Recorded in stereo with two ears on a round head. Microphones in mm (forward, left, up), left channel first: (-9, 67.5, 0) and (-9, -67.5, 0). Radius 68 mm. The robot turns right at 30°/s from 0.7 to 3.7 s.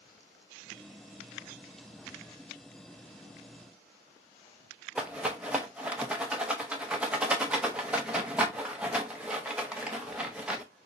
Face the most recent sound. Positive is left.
turn(degrees=-5)  # may be behind; listen again after turning